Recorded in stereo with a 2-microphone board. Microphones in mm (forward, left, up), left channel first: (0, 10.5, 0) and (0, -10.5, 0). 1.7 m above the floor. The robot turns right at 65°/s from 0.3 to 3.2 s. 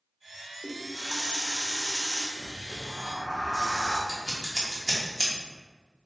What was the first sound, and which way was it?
A running tap, 25° right (ahead or behind).